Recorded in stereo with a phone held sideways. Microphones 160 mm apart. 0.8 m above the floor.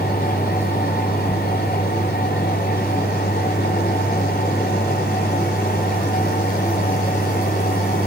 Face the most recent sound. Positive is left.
turn(degrees=85)